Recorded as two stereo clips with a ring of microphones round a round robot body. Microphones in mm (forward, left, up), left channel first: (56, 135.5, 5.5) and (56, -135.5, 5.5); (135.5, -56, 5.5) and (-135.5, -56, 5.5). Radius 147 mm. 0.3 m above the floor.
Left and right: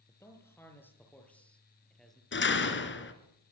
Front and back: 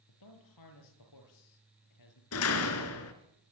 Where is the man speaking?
10° left, 9 m; by 2.2 s straight ahead, 8.5 m.